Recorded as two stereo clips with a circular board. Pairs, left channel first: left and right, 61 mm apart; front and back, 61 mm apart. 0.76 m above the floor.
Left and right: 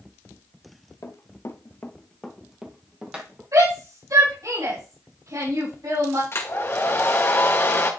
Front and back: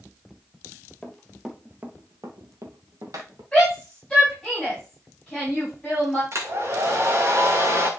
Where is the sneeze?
No sneeze in this recording.